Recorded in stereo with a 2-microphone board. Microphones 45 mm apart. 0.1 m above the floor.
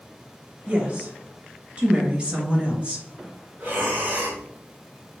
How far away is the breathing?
About 2.0 m.